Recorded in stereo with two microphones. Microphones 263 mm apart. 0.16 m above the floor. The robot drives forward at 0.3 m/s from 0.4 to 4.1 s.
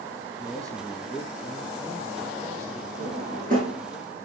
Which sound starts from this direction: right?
A drawer, at 3.0 s.